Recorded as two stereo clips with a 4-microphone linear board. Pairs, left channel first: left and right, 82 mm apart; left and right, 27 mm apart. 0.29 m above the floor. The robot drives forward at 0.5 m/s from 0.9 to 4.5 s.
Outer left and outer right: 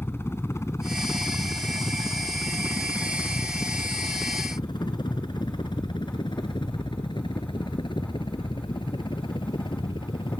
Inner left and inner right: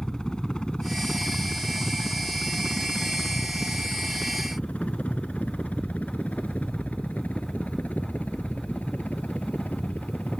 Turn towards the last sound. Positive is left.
turn(degrees=75)  # may be behind; listen again after turning